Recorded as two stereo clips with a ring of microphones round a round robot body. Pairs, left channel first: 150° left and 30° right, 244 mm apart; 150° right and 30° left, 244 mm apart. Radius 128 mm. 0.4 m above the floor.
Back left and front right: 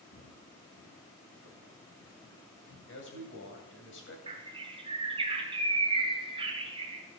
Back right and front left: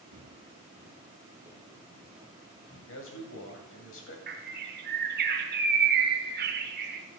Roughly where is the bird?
Ahead left.